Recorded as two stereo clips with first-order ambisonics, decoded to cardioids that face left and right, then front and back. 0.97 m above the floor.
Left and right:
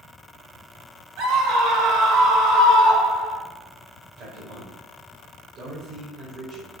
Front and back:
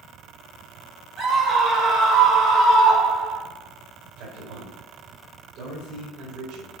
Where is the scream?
120° right, 4 m; by 3.4 s 135° right, 3.5 m.